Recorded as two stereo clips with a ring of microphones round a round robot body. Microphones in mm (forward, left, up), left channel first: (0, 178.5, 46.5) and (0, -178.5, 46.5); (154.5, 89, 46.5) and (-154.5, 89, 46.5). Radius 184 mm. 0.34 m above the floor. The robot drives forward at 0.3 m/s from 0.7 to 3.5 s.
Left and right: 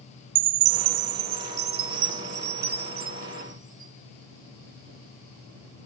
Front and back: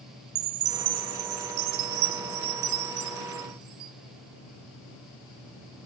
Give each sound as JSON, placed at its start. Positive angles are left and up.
{"t": 0.3, "sound": "a chime", "azimuth_deg": -125, "distance_m": 0.5}